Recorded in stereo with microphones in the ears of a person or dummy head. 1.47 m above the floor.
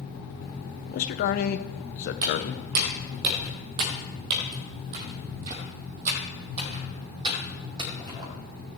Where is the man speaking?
50° left (ahead or behind), 0.8 m.